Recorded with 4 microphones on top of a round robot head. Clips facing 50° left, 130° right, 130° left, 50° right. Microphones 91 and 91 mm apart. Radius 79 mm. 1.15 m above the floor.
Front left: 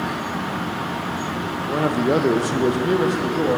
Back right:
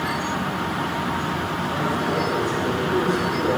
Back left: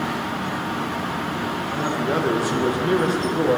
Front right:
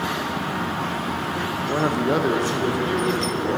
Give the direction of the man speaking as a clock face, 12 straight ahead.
12 o'clock.